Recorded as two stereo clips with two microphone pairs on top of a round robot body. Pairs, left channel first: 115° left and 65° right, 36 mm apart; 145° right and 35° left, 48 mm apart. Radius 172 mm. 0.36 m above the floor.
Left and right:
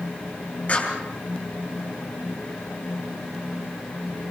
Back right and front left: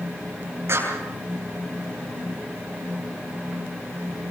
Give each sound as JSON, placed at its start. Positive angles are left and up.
{"t": 0.7, "sound": "a clap", "azimuth_deg": 70, "distance_m": 7.5}